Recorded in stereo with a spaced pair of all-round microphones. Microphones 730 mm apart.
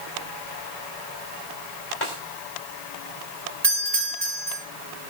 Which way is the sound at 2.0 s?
40° left (ahead or behind).